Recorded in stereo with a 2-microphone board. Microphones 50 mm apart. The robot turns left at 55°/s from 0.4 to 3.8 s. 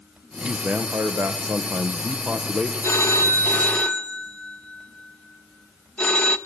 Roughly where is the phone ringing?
Left.